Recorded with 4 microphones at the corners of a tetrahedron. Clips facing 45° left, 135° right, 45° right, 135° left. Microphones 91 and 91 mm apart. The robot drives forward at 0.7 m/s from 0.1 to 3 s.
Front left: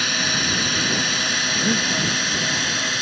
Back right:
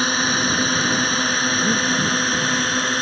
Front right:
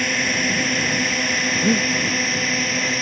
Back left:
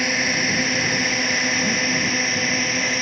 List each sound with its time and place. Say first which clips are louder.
0.0 s a drone: back right 4 dB, even; 145° right; by 3.0 s 135° right
1.5 s breathing: front left 1 dB, front right 4 dB; 45° right